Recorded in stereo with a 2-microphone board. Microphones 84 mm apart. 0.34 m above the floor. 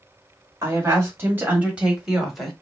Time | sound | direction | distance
0.6 | a woman speaking | 35° right (ahead or behind) | 1.6 m